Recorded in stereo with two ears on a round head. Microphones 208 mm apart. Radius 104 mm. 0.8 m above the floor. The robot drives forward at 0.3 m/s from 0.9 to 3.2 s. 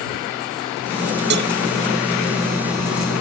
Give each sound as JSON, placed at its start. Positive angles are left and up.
{"t": 1.3, "sound": "a cowbell", "side_deg": -50}